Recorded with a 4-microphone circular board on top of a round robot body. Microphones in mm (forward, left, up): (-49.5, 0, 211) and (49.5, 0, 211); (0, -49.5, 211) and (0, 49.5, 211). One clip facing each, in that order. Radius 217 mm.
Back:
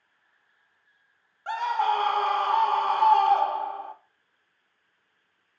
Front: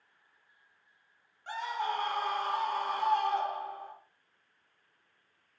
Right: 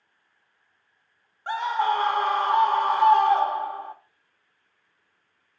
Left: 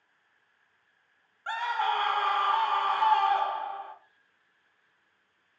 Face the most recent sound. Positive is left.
turn(degrees=-160)